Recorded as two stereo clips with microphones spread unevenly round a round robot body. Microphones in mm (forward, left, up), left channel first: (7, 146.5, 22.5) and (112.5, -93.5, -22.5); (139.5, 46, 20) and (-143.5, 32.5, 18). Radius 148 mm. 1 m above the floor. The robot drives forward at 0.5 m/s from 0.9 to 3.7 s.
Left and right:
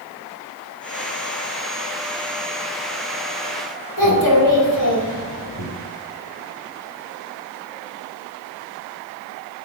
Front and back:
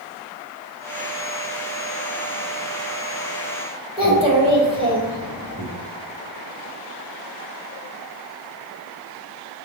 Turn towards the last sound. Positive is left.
turn(degrees=110)